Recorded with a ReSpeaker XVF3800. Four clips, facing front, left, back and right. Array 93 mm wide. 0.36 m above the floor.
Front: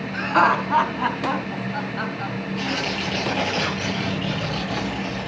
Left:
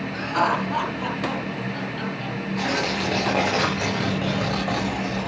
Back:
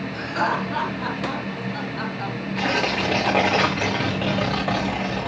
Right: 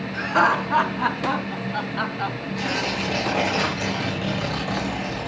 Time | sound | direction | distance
0.1 | laughter | 20° right | 4 m
2.5 | tearing paper | 155° left | 6 m